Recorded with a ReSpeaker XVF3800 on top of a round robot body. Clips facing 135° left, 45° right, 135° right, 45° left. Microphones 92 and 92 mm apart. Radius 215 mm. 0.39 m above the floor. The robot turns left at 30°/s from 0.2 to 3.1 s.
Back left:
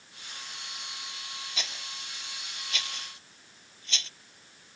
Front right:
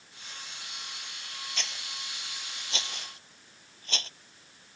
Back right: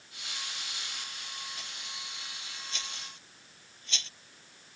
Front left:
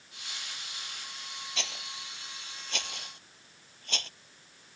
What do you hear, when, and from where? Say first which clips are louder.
1.6 s a rattle: even, front left 4 dB; 50° left; by 4.1 s 5° left